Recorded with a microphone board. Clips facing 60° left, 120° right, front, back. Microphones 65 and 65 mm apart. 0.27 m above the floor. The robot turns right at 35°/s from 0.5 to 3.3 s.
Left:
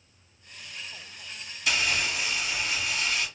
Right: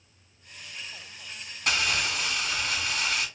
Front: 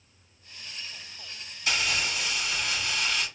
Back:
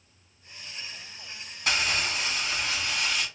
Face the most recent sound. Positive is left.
turn(degrees=-95)